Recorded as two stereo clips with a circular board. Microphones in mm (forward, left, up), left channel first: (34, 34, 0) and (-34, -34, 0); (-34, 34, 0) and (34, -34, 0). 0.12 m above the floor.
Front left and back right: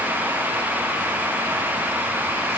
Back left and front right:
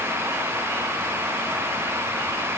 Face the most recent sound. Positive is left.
No sound to turn to.